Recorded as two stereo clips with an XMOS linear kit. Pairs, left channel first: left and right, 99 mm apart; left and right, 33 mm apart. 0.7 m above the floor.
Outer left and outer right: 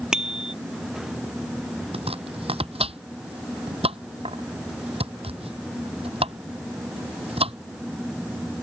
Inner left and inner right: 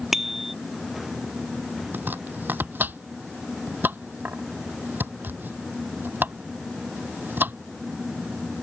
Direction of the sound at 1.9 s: 85° right.